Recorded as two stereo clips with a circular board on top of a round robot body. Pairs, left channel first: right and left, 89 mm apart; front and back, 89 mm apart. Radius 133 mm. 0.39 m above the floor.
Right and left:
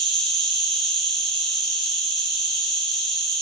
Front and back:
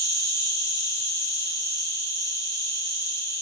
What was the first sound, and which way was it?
An insect, 5° right.